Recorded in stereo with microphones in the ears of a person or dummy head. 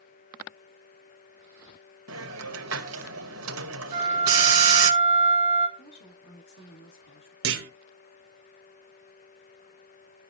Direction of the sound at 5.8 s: 65° left (ahead or behind).